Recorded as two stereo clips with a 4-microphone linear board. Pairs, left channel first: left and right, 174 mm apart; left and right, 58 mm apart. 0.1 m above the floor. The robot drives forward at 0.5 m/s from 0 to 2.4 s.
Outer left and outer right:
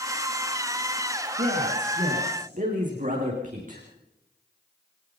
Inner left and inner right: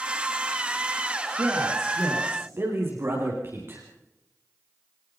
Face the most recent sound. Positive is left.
turn(degrees=-50)  # may be behind; listen again after turning